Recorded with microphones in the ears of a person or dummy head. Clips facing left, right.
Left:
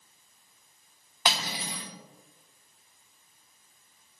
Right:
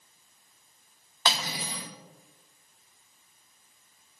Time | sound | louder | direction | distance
1.2 | cutlery clinking | even | 15° left (ahead or behind) | 1.4 m